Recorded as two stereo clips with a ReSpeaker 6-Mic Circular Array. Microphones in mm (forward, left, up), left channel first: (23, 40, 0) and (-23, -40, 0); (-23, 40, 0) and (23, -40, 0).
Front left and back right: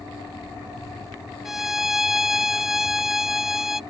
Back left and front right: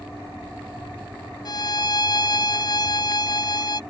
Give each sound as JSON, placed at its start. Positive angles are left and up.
{"t": 1.4, "sound": "a violin", "azimuth_deg": 155}